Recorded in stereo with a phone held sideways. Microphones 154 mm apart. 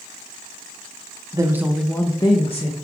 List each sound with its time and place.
1.3 s a woman speaking: 25° right (ahead or behind), 0.6 m; by 2.7 s 50° left (ahead or behind), 0.8 m